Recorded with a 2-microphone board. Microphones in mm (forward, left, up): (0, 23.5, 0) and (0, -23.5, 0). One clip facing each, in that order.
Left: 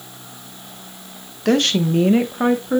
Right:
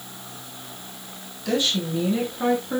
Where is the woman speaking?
65° left (ahead or behind), 1.4 m; by 2.8 s 20° left (ahead or behind), 1.4 m.